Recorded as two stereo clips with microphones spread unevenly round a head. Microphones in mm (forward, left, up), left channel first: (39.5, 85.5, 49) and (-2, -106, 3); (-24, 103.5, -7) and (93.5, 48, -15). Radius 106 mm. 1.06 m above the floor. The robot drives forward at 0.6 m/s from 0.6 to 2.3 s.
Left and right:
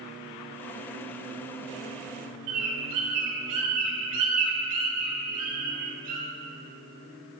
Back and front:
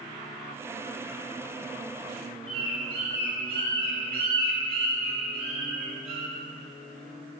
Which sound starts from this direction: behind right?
A bird, at 2.5 s.